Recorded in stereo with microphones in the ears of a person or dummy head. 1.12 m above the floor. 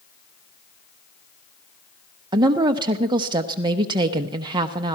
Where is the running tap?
No running tap in this recording.